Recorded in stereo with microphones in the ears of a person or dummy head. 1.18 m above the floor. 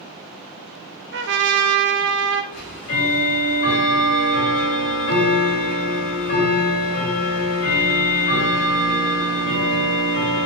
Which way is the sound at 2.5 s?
55° left (ahead or behind).